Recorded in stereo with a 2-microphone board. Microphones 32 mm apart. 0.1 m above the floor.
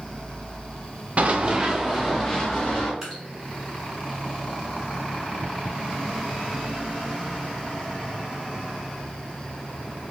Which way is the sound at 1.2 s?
45° right (ahead or behind).